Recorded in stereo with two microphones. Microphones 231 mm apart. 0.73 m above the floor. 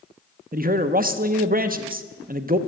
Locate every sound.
0.5 s a man speaking: 40° right (ahead or behind), 0.9 m